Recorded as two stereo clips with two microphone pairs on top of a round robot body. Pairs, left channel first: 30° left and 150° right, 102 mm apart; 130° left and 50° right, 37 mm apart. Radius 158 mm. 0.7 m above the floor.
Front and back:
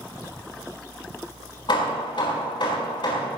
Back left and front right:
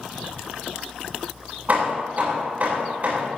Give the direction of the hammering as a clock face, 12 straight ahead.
12 o'clock.